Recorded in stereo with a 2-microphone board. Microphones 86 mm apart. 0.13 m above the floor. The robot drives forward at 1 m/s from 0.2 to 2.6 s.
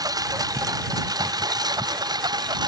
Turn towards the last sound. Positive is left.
turn(degrees=-50)  # may be behind; listen again after turning